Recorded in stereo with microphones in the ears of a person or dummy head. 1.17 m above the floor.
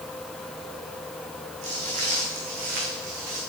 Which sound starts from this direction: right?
Footsteps, at 1.6 s.